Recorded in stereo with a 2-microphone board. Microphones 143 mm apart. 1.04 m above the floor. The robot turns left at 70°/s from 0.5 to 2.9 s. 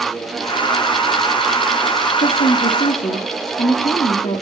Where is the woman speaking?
100° left, 3 m; by 4.4 s 45° left, 3 m.